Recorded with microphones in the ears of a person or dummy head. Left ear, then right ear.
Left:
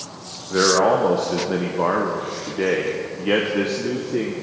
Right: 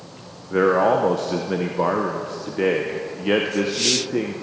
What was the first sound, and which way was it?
A man speaking, 10° right (ahead or behind).